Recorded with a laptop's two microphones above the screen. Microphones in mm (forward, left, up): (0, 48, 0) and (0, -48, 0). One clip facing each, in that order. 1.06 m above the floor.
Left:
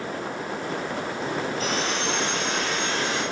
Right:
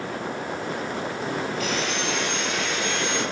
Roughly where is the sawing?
Left.